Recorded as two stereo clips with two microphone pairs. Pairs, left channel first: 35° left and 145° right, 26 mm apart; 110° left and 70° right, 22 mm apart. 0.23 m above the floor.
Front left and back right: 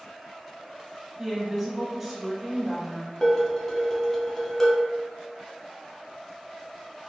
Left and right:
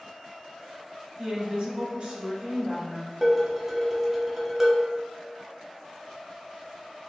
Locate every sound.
1.2 s a woman speaking: 70° right, 1.3 m
3.2 s dishes clattering: 10° right, 0.7 m